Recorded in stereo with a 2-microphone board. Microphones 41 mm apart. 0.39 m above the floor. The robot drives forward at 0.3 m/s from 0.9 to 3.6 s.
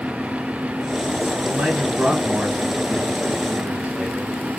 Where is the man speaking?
45° right (ahead or behind), 3.5 m; by 4.3 s 35° right (ahead or behind), 4 m.